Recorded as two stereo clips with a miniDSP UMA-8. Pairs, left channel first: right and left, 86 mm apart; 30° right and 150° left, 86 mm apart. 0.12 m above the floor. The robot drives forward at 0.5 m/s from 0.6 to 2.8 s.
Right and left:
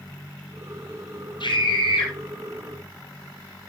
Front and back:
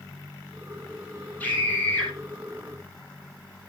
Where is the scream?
100° right, 4 m; by 2.1 s 105° right, 4 m.